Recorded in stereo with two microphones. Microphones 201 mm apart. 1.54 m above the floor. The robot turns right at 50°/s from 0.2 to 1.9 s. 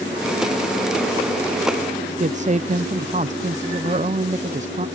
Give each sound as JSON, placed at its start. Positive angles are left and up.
{"t": 2.2, "sound": "a woman speaking", "side_deg": -35}